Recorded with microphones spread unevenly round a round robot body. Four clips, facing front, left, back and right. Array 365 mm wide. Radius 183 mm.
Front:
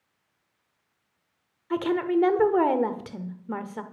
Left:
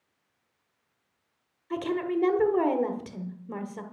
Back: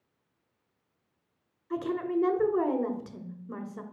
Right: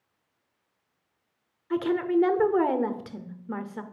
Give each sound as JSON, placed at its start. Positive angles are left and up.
{"t": 1.7, "sound": "a woman speaking", "azimuth_deg": -25, "distance_m": 1.1}